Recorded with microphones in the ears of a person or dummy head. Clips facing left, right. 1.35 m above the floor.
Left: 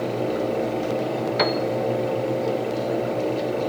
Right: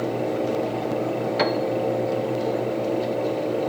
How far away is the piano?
About 0.6 m.